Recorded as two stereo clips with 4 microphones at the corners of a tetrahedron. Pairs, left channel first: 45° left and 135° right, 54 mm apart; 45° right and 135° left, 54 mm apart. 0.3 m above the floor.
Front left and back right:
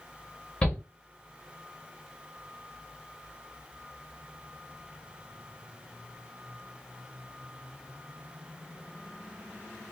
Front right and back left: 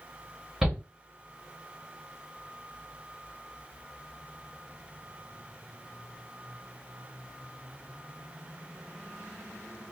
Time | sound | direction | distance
0.6 | a shout | 65° left | 1.2 m